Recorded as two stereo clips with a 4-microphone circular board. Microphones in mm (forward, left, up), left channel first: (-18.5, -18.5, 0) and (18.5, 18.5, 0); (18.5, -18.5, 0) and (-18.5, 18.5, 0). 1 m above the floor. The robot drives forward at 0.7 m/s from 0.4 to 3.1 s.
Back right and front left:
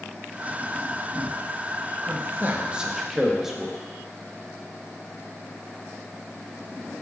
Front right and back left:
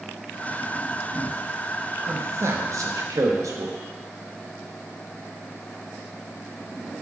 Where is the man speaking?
85° left, 0.9 m; by 3.8 s 125° left, 1.2 m.